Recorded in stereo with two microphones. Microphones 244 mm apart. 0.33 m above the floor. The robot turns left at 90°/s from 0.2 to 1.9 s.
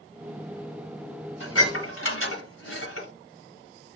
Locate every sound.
1.4 s dishes clattering: 60° left (ahead or behind), 1.7 m; by 3.1 s 65° left (ahead or behind), 1.7 m